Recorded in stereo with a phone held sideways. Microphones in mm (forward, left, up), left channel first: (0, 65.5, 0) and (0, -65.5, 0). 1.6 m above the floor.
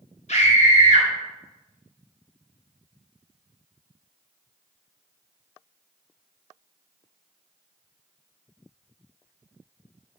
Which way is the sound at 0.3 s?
55° left (ahead or behind).